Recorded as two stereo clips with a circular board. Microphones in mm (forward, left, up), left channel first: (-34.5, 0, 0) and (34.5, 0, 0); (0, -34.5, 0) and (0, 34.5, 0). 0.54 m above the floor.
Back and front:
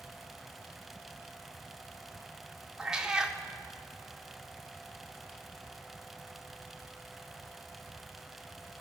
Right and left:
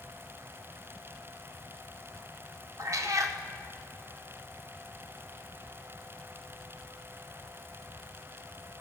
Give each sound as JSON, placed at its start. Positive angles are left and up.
{"t": 2.8, "sound": "a cat meowing", "azimuth_deg": 80, "distance_m": 0.6}